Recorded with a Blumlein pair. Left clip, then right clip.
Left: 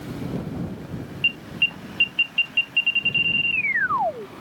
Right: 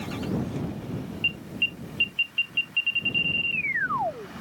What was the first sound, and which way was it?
An alarm, 15° left.